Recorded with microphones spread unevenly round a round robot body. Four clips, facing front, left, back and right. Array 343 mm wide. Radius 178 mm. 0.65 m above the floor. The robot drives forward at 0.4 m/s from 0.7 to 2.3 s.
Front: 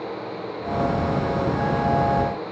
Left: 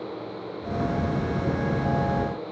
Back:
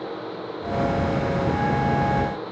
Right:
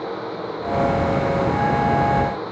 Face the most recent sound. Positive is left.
No sound to turn to.